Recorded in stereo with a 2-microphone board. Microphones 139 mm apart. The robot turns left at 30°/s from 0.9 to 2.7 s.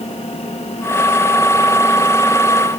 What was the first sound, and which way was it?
Only background noise.